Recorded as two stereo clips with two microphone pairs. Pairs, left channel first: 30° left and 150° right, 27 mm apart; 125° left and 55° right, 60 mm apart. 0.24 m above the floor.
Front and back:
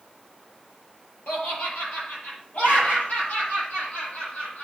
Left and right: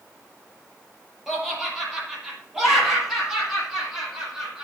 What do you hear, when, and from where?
1.3 s laughter: 30° left, 6 m; by 4.6 s 25° left, 9 m